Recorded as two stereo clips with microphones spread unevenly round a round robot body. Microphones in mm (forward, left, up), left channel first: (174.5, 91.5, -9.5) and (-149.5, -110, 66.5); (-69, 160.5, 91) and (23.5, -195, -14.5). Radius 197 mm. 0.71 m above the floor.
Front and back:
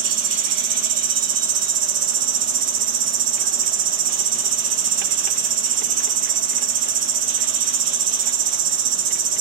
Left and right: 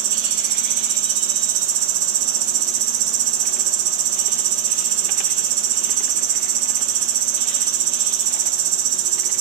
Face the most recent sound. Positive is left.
turn(degrees=-95)